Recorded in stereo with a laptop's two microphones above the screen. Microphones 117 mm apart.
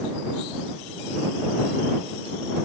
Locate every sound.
Only background noise.